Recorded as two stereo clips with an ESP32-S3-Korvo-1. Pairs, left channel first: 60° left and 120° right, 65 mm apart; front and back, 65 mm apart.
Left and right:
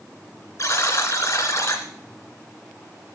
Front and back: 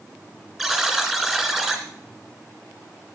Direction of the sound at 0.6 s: 95° left.